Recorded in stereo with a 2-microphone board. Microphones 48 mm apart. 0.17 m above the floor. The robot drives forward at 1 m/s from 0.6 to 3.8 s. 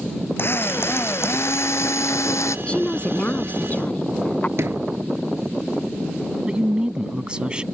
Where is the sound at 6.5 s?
20° right (ahead or behind).